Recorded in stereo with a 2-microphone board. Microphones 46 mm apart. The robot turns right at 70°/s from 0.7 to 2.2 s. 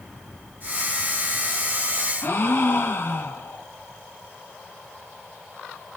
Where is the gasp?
55° left (ahead or behind), 1.2 m.